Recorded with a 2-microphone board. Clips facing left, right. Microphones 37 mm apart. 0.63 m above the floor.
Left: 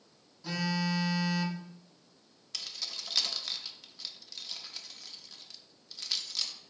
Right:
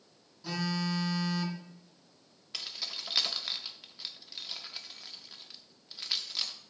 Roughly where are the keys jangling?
Centre.